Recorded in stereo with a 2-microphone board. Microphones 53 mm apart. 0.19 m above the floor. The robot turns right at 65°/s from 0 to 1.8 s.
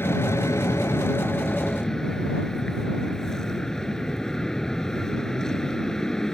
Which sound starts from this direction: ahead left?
An aircraft, at 0.0 s.